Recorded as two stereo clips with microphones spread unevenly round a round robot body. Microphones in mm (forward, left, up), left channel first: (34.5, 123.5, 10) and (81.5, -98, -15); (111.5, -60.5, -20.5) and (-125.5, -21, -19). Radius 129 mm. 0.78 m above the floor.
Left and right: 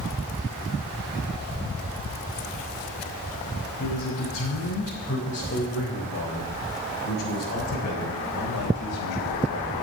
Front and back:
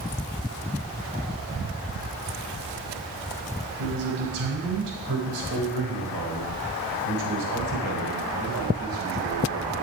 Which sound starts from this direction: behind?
A man speaking, at 3.8 s.